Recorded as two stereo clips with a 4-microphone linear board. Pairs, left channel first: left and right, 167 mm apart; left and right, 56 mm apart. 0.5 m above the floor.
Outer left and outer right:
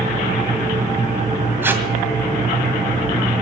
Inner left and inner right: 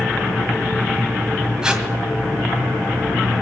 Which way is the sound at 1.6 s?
10° right (ahead or behind).